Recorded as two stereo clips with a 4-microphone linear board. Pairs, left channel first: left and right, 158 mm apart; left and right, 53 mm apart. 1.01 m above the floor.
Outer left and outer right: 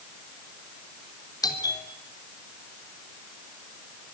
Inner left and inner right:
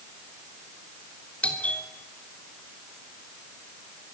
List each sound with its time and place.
1.4 s a doorbell: 25° left (ahead or behind), 3 m